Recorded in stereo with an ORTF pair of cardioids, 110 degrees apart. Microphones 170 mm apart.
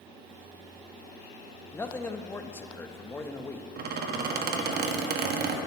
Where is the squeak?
65° right, 1.1 m.